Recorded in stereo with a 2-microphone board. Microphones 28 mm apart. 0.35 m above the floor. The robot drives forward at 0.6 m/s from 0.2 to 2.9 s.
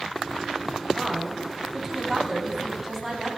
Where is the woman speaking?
15° right (ahead or behind), 1.9 m; by 3.3 s 10° right (ahead or behind), 3 m.